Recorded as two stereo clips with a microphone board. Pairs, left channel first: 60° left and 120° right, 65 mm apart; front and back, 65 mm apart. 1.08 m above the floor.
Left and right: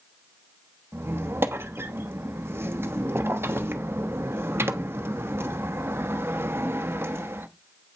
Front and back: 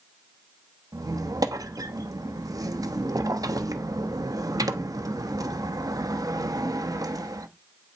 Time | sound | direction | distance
0.9 | a squeak | 170° right | 0.8 m